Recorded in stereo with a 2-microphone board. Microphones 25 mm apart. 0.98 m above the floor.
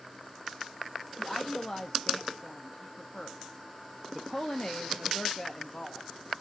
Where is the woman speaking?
35° left (ahead or behind), 0.8 m.